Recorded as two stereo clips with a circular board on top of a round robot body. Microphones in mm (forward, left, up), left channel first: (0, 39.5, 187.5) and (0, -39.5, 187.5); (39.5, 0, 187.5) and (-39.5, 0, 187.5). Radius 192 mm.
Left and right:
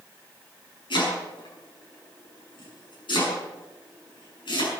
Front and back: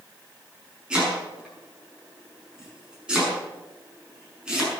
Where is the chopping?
100° left, 7 m.